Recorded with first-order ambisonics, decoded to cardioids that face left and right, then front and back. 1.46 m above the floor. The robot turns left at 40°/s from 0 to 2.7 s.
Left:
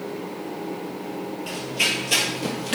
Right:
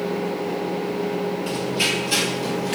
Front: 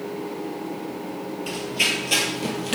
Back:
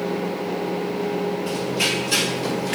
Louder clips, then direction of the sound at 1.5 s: Left 1 dB, front 2 dB; 5° left.